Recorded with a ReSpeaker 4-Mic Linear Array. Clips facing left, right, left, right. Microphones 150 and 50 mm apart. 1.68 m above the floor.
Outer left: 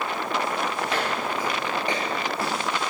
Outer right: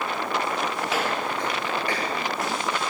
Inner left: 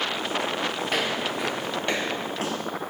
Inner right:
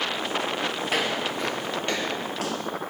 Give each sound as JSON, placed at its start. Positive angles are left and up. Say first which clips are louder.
{"t": 0.9, "sound": "footsteps", "louder": "even, even", "side_deg": -5, "distance_m": 1.9}